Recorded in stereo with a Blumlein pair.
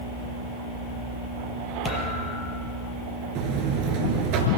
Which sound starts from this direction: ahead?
A thud, at 1.9 s.